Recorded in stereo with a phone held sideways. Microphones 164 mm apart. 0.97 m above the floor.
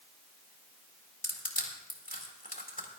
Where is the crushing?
55° left (ahead or behind), 1.9 m.